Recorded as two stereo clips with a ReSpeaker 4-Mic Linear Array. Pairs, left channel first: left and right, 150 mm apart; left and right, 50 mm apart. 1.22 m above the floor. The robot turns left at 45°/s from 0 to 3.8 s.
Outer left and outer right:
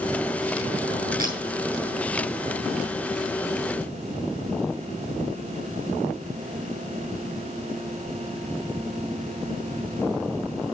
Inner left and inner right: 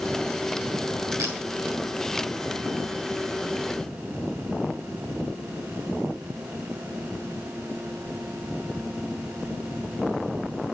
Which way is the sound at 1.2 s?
75° right (ahead or behind).